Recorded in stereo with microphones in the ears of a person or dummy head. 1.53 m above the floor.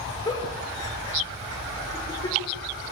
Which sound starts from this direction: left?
A giggle, at 0.2 s.